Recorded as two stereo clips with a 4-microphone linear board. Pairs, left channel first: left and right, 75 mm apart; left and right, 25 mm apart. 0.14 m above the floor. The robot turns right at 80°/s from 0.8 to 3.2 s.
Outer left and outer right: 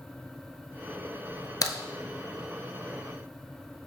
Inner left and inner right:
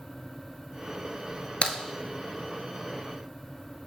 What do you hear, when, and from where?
1.6 s a crack: 55° left (ahead or behind), 0.6 m; by 1.8 s 60° left (ahead or behind), 0.6 m